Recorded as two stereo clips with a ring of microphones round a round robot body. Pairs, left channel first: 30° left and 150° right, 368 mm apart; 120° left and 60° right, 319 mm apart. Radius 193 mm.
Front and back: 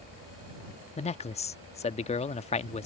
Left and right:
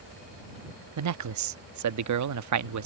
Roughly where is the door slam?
I don't hear a door slam.